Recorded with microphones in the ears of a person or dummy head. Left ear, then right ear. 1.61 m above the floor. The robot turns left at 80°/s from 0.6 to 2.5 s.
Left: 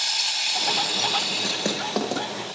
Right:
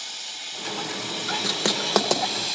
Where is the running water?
75° left, 0.8 m; by 2.5 s 80° right, 0.8 m.